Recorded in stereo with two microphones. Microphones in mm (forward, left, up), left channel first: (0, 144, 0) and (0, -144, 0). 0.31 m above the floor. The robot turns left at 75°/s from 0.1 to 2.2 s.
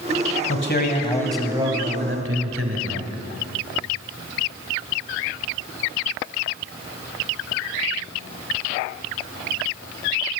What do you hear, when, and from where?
0.5 s a man speaking: 65° left, 1.6 m; by 3.1 s 65° right, 1.6 m